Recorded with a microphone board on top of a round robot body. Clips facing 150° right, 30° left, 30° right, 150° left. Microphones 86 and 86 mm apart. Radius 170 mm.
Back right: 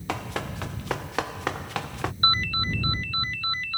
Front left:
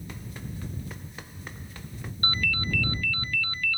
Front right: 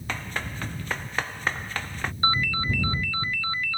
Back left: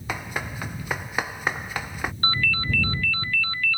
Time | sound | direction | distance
0.1 | running footsteps | 130° right | ?
2.2 | a ringtone | 100° right | ?